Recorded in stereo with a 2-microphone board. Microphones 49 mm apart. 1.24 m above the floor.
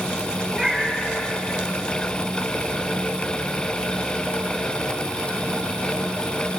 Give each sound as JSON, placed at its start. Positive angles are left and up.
{"t": 0.5, "sound": "a cat meowing", "side_deg": -10, "distance_m": 5.0}